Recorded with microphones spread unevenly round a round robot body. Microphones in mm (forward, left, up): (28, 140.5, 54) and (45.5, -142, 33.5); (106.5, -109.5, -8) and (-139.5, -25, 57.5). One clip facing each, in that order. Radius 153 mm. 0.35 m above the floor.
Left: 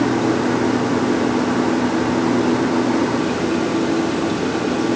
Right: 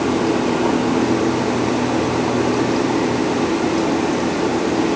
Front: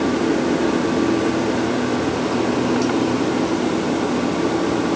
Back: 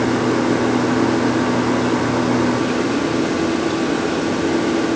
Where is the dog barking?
I don't hear a dog barking.